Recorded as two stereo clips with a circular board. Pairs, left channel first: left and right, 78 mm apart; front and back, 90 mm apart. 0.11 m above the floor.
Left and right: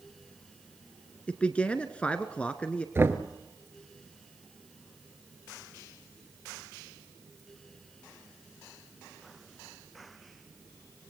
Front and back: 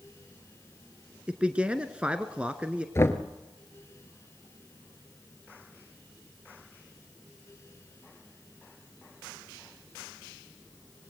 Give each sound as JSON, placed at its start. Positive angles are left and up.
{"t": 1.3, "sound": "a man speaking", "azimuth_deg": 125, "distance_m": 1.2}
{"t": 3.0, "sound": "knocking", "azimuth_deg": -45, "distance_m": 1.4}